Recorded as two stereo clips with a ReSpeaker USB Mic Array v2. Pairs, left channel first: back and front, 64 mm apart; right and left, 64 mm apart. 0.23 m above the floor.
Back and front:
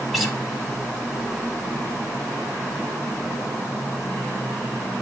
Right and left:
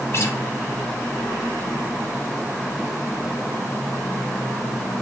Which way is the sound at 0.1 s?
90° right.